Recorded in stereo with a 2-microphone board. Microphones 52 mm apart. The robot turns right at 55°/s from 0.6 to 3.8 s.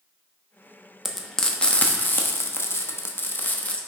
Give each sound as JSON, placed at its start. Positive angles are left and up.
{"t": 1.1, "sound": "frying", "side_deg": 0, "distance_m": 0.9}